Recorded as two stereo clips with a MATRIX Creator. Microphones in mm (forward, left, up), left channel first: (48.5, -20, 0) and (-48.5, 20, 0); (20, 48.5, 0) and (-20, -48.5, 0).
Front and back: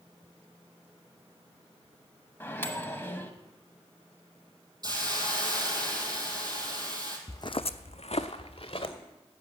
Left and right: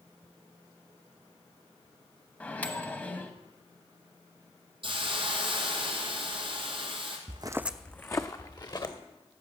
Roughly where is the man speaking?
No man speaking in this recording.